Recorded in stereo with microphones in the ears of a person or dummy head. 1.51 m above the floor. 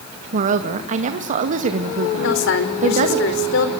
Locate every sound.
0.3 s a woman speaking: 40° right (ahead or behind), 1.8 m
2.2 s a woman speaking: 70° left (ahead or behind), 4.5 m